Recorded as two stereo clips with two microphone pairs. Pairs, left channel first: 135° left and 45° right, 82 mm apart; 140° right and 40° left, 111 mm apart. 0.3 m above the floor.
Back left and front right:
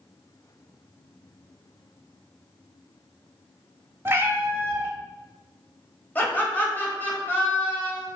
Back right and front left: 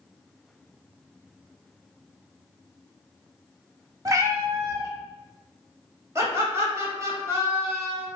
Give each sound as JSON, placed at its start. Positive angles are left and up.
{"t": 4.0, "sound": "a cat meowing", "azimuth_deg": 0, "distance_m": 0.6}
{"t": 6.2, "sound": "laughter", "azimuth_deg": 80, "distance_m": 1.3}